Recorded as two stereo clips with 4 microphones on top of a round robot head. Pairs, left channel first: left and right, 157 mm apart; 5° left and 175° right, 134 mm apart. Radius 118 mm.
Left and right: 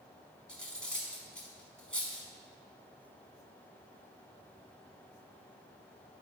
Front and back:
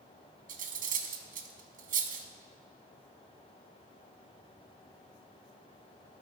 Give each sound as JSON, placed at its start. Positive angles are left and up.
{"t": 0.5, "sound": "cutlery clinking", "azimuth_deg": 175, "distance_m": 0.8}